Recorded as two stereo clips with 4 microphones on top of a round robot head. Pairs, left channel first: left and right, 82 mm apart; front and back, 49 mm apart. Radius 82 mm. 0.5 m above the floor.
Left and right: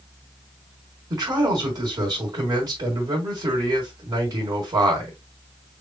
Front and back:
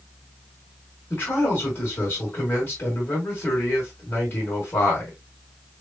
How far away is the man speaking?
About 3 m.